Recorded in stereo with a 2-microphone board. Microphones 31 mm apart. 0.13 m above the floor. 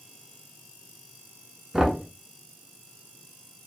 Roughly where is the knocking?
Centre.